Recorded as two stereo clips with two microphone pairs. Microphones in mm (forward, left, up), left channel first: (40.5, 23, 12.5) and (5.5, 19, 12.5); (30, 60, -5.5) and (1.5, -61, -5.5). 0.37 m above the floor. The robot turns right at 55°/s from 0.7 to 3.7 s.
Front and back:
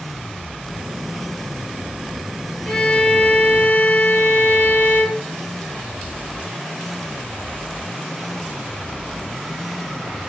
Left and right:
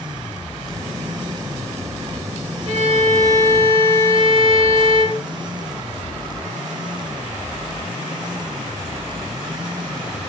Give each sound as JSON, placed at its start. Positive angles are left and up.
{"t": 2.6, "sound": "a violin", "azimuth_deg": -75, "distance_m": 4.0}